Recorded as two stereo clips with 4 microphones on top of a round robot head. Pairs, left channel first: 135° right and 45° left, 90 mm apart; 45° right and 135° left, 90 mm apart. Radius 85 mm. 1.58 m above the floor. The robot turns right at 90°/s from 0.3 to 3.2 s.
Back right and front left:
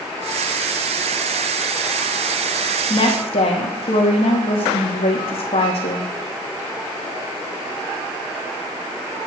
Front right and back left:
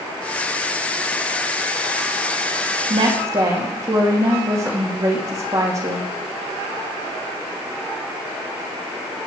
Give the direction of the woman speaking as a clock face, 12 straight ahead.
6 o'clock.